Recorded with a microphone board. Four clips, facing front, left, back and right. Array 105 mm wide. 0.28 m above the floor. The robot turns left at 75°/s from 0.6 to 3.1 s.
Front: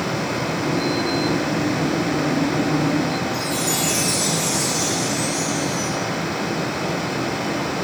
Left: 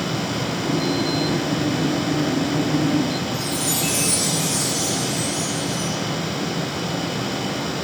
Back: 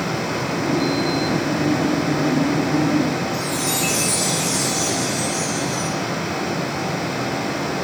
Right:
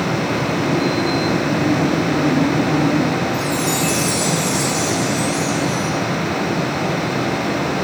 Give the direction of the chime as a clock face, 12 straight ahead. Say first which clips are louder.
Right 6 dB, even; 5 o'clock.